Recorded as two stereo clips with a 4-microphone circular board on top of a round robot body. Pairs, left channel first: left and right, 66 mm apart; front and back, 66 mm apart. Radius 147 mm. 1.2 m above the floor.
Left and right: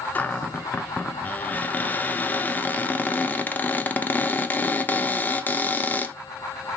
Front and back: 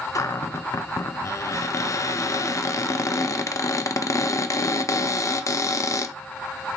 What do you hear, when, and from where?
0.1 s a cupboard door: 30° left, 0.6 m